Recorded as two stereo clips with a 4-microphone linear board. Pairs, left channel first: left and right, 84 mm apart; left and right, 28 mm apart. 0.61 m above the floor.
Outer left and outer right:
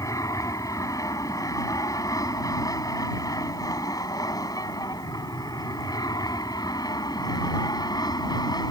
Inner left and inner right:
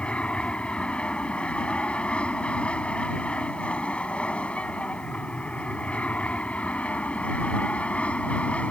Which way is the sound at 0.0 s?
40° left (ahead or behind).